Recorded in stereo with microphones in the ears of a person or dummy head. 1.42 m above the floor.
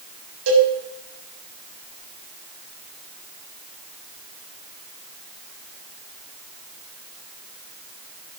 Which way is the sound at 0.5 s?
75° right (ahead or behind).